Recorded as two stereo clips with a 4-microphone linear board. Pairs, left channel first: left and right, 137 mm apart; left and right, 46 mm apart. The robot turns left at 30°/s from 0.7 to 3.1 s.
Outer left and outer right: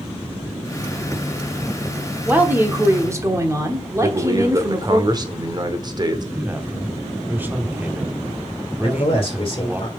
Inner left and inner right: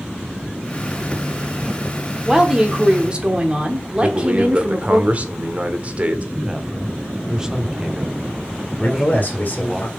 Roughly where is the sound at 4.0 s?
Right.